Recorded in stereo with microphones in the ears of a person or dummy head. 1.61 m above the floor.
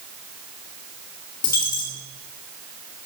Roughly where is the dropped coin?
Left.